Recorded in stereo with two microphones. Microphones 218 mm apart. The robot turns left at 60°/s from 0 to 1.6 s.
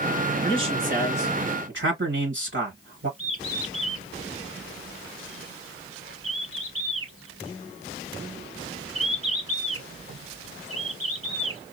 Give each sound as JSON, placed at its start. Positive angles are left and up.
{"t": 0.4, "sound": "a man speaking", "azimuth_deg": -20, "distance_m": 2.5}
{"t": 3.2, "sound": "a bird", "side_deg": -70, "distance_m": 3.0}